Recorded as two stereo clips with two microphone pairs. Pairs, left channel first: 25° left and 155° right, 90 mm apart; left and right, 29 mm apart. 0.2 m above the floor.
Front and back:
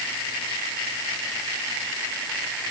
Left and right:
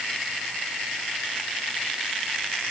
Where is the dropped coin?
I don't hear a dropped coin.